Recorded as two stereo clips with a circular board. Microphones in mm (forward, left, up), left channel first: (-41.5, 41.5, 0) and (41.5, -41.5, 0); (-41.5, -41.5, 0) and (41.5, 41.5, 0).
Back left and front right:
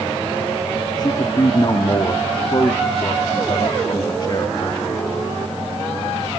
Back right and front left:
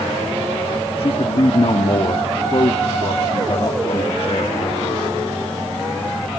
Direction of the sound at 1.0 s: 170° right.